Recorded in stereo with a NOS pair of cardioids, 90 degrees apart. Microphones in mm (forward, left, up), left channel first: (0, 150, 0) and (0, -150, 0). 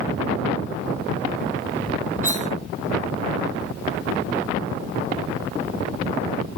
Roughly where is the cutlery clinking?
Ahead right.